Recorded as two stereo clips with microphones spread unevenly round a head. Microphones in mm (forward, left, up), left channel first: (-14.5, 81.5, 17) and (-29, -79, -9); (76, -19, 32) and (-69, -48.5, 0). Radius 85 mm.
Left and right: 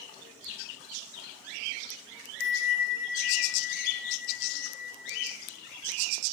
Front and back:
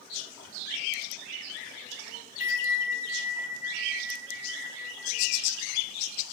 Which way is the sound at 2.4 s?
55° left.